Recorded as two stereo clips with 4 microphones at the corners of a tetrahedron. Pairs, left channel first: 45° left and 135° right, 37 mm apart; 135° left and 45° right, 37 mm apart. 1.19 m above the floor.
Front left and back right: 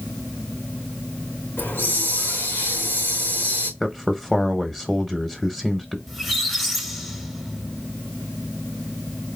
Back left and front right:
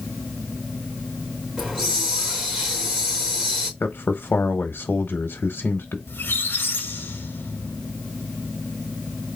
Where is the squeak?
135° left, 1.0 m.